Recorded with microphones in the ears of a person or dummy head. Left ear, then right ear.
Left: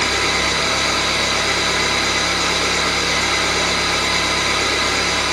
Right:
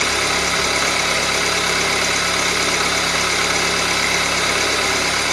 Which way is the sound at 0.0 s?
45° right (ahead or behind).